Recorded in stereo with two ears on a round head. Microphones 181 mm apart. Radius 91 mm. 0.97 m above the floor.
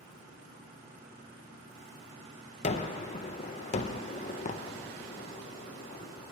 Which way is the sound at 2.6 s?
35° left (ahead or behind).